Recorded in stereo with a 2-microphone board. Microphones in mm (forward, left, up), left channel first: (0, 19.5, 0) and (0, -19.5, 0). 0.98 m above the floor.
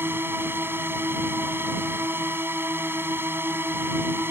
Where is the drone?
80° right.